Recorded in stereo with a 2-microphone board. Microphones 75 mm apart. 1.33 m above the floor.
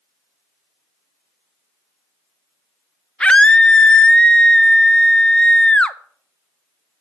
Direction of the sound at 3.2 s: 15° left (ahead or behind).